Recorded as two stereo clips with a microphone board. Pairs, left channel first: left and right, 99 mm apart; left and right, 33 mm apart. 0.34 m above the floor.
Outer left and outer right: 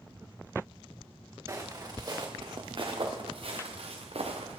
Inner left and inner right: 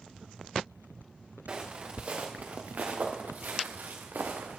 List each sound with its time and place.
1.5 s footsteps: 35° right (ahead or behind), 2 m; by 4.6 s 80° right, 2.0 m